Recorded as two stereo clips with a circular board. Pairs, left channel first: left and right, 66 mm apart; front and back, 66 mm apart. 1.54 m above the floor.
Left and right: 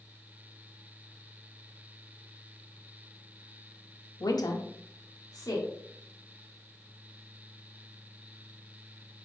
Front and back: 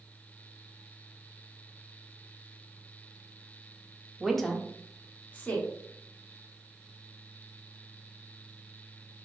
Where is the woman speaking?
95° left, 0.5 m; by 5.7 s 65° left, 1.1 m.